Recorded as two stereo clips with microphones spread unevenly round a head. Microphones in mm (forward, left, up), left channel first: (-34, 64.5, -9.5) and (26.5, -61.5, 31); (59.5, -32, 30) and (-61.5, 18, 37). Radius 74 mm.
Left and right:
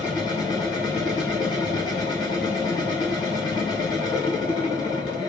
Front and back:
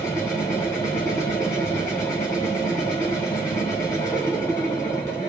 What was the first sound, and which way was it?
A machine running, 45° left.